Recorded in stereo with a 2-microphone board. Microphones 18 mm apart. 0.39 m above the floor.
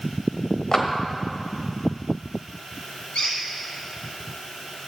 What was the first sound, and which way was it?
A clap, 40° left (ahead or behind).